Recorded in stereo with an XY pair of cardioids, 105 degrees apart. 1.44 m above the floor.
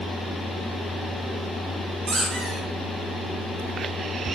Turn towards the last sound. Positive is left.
turn(degrees=-55)